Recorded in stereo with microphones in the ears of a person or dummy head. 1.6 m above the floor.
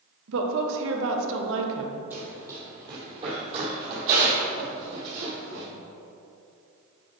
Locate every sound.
0.3 s a woman speaking: 70° right (ahead or behind), 1.3 m
2.1 s running footsteps: 10° right (ahead or behind), 2.5 m; by 5.7 s 60° right (ahead or behind), 3.5 m